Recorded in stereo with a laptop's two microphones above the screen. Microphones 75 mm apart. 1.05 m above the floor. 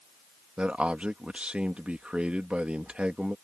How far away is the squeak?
No squeak in this recording.